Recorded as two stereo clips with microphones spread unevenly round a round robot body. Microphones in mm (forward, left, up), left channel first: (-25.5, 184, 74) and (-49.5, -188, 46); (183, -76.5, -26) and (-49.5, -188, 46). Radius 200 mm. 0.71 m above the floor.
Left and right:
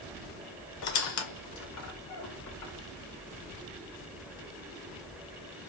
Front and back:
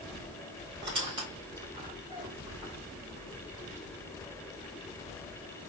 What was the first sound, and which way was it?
A squeak, 120° left.